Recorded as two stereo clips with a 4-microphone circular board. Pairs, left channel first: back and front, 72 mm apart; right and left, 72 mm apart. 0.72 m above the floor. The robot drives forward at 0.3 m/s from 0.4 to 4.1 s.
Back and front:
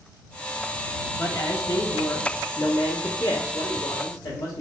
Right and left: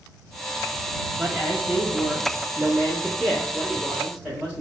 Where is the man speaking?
170° left, 0.7 m; by 4.6 s 175° left, 1.4 m.